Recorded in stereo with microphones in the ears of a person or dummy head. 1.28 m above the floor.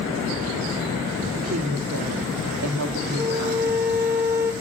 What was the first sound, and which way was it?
A woman speaking, 80° right.